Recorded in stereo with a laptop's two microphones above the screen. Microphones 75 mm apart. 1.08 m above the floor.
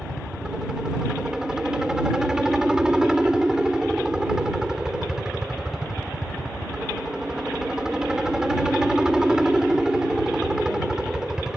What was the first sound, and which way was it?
A helicopter, 10° right (ahead or behind).